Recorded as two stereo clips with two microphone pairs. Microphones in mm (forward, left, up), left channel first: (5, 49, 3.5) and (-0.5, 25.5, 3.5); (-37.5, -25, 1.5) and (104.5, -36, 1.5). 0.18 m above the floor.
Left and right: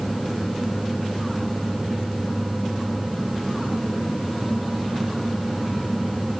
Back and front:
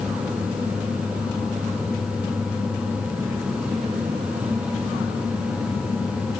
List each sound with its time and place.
Only background noise.